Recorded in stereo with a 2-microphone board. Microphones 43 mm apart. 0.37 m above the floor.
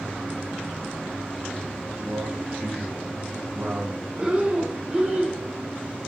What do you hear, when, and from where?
1.9 s a man speaking: 75° right (ahead or behind), 4.5 m; by 4.1 s 70° right (ahead or behind), 3 m
4.2 s breathing: 25° right (ahead or behind), 1.3 m